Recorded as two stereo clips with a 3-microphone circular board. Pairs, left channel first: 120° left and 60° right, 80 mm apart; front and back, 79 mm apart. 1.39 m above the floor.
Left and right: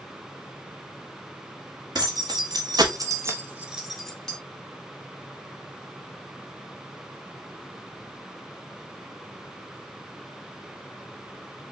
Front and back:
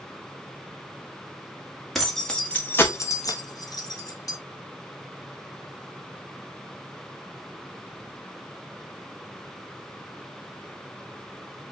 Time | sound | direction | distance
1.9 | keys jangling | 85° right | 1.4 m